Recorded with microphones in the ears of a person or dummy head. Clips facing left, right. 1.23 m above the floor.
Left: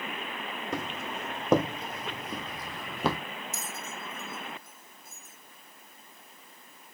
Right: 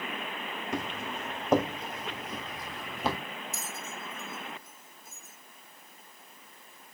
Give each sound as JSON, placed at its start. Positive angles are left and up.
{"t": 0.7, "sound": "footsteps", "side_deg": 75, "distance_m": 5.5}
{"t": 3.5, "sound": "a bell", "side_deg": 80, "distance_m": 2.5}